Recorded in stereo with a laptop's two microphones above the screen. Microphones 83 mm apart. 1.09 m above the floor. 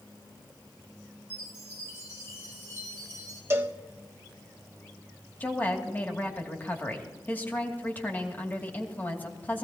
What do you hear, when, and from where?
1.3 s a chime: 35° left (ahead or behind), 3.5 m
3.5 s a cowbell: 30° right (ahead or behind), 1.1 m
5.4 s a woman speaking: 20° left (ahead or behind), 2.5 m